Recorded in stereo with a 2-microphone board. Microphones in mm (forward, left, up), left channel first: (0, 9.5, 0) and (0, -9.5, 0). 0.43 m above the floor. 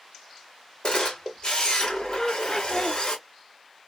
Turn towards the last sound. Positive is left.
turn(degrees=20)  # may be behind; listen again after turning